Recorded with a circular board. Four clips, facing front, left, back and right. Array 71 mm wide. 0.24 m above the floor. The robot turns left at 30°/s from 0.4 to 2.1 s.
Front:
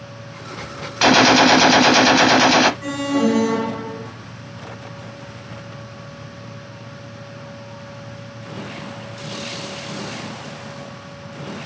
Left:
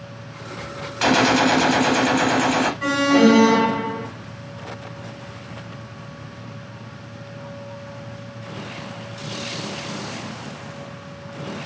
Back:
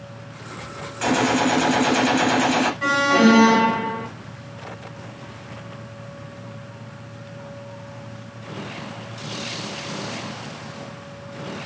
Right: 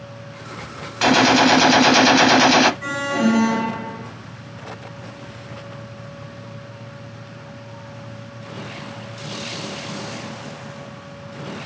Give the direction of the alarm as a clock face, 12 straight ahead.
7 o'clock.